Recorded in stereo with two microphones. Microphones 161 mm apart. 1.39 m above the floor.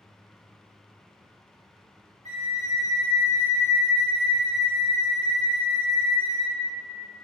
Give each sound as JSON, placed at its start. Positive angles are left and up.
{"t": 2.2, "sound": "a flute", "side_deg": -45, "distance_m": 1.2}